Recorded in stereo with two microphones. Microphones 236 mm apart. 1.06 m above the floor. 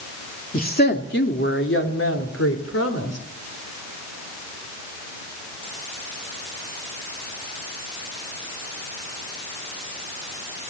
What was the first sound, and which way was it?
A woman speaking, 35° left (ahead or behind).